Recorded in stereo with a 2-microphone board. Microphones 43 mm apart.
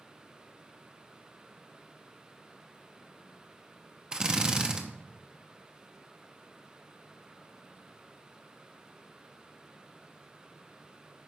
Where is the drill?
20° right (ahead or behind), 0.9 m.